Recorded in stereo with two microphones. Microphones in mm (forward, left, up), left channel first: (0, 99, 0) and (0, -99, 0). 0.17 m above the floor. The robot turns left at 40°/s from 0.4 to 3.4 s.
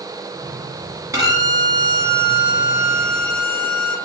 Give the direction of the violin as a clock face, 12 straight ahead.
1 o'clock.